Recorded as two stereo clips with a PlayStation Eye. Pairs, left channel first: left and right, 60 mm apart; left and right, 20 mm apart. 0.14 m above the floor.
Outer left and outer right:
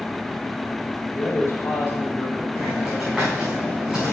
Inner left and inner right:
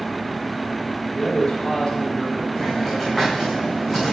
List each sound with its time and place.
1.1 s a man speaking: 45° left (ahead or behind), 3 m
2.5 s a hiss: 10° right (ahead or behind), 4.5 m